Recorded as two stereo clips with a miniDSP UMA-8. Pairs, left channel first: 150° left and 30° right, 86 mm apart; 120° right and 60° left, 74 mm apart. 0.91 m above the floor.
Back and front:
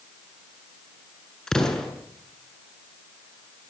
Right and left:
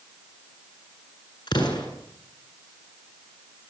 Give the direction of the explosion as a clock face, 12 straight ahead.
4 o'clock.